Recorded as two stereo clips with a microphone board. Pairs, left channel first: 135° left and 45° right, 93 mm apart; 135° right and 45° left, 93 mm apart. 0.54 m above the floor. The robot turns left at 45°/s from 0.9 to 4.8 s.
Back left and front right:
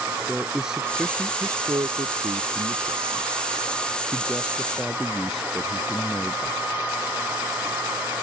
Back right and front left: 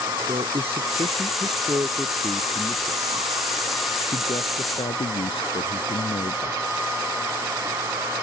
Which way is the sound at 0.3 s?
40° left.